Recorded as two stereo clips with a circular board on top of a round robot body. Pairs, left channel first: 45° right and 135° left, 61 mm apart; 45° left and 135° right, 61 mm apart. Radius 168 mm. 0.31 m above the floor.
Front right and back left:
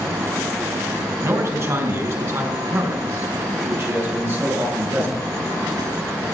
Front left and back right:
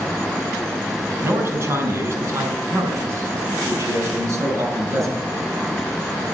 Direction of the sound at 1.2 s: 175° left.